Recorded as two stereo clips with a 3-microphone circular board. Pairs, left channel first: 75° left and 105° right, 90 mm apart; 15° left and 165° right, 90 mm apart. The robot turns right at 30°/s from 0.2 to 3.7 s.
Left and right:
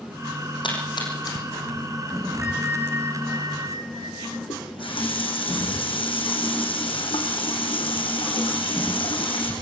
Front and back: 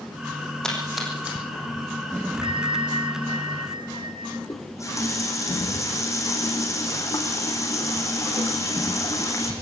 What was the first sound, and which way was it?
A splash, 95° left.